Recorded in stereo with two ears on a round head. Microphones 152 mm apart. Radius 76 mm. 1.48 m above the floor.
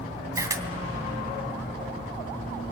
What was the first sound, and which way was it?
A camera shutter, 20° right (ahead or behind).